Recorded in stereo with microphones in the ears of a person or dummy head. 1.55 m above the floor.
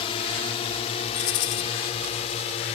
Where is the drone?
30° left (ahead or behind); by 2.8 s 35° left (ahead or behind).